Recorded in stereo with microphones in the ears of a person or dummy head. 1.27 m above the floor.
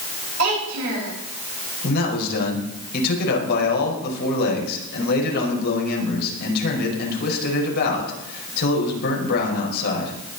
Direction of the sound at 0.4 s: 80° right.